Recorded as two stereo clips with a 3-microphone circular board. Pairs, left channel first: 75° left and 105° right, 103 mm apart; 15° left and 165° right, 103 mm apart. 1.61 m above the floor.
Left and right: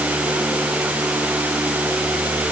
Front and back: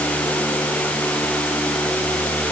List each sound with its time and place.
Only background noise.